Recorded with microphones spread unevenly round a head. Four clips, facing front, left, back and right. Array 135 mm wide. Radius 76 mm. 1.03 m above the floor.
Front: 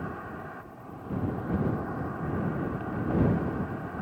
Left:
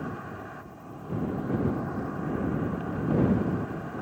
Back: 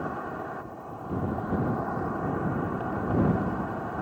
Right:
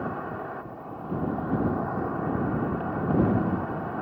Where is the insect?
125° right.